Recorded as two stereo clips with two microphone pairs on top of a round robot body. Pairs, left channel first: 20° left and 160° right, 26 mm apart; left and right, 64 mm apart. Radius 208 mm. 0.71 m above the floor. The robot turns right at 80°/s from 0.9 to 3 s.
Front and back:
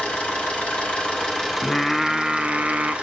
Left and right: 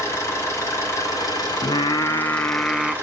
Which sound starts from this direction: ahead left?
An engine running, at 0.0 s.